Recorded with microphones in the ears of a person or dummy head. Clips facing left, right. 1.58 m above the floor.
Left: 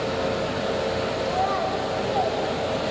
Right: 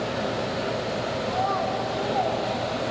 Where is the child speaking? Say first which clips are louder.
Even; 45° left (ahead or behind), 1.4 m; by 2.4 s centre (ahead or behind), 1.7 m.